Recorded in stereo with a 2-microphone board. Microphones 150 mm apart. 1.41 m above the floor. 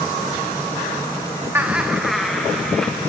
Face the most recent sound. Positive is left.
turn(degrees=5)  # may be behind; listen again after turning